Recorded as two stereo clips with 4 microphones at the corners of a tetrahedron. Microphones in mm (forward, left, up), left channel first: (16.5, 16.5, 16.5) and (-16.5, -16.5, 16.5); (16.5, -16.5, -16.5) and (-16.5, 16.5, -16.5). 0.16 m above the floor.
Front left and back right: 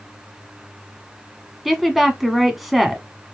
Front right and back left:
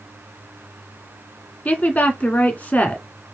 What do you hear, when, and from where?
1.6 s a woman speaking: 45° right, 1.3 m